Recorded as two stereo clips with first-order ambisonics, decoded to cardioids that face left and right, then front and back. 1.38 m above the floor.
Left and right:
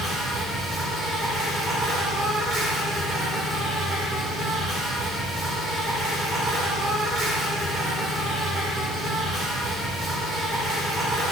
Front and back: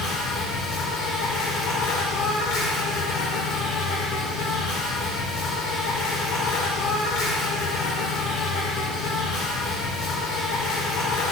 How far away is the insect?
About 1.6 m.